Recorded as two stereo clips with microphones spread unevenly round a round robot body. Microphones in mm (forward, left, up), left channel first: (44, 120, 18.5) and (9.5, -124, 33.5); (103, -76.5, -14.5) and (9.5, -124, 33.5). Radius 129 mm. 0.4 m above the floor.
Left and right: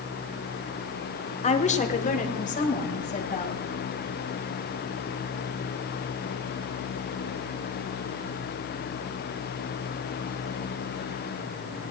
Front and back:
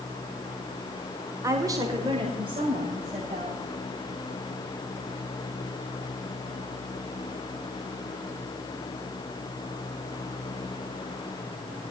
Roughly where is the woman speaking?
Behind left.